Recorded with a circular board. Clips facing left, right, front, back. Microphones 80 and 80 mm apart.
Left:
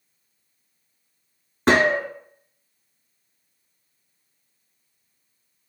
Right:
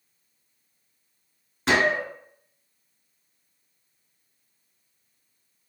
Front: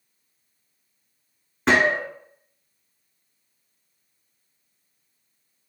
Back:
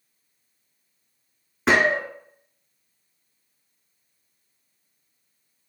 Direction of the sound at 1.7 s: 95° left.